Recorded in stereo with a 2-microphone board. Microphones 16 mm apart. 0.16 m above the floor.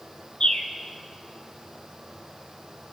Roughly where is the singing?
No singing in this recording.